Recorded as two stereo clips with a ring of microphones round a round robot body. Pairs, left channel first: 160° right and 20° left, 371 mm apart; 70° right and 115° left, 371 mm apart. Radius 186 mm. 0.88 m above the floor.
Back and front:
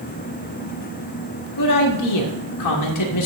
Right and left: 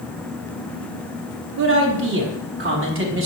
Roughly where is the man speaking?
Behind.